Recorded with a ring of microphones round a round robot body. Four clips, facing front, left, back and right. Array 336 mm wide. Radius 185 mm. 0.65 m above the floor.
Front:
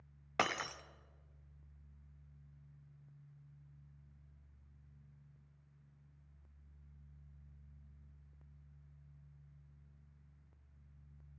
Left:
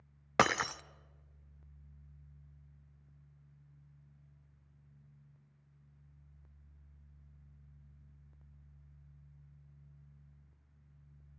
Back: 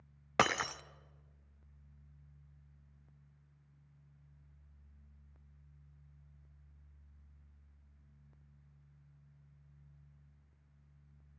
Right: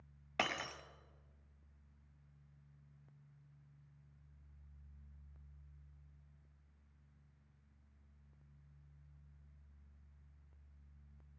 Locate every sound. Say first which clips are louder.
0.4 s breaking glass: left 10 dB, back 5 dB; 115° left, 0.6 m